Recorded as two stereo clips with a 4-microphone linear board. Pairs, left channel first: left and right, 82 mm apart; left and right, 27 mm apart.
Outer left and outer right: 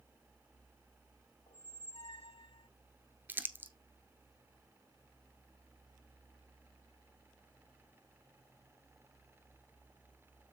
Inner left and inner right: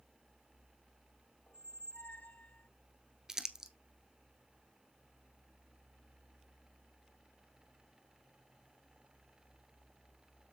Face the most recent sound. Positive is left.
turn(degrees=-25)  # may be behind; listen again after turning